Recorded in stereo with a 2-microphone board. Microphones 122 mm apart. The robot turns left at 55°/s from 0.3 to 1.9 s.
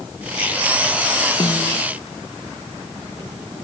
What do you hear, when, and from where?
1.4 s a snare drum: 40° left (ahead or behind); by 1.8 s 65° left (ahead or behind)